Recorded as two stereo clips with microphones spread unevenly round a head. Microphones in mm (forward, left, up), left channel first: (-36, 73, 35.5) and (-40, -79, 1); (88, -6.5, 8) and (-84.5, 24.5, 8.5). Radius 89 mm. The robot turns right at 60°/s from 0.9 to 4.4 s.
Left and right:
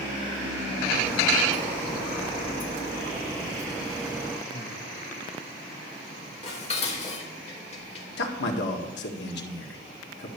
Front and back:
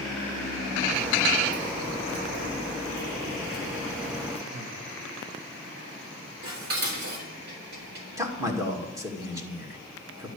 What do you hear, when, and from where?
4.5 s breathing: 135° left, 1.2 m
6.4 s dishes clattering: 135° left, 3 m
8.2 s a man speaking: 95° left, 2 m